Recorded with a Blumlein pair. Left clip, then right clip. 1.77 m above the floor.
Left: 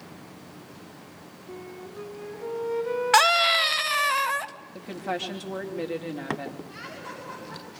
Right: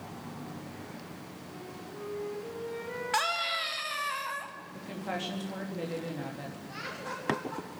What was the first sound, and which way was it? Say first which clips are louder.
A flute: left 6 dB; 45° left.